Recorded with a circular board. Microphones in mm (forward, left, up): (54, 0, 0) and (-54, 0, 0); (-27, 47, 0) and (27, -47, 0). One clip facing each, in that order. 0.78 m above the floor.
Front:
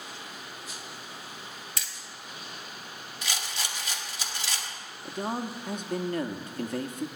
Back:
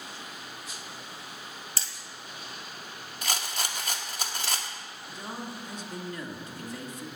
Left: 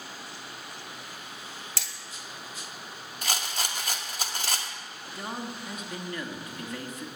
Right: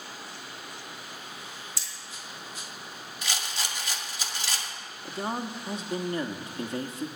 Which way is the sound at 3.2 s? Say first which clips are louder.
Back 3 dB, left 2 dB; 150° left.